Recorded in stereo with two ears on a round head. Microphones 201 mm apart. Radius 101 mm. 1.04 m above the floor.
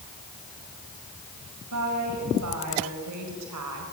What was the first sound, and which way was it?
A woman speaking, 75° right (ahead or behind).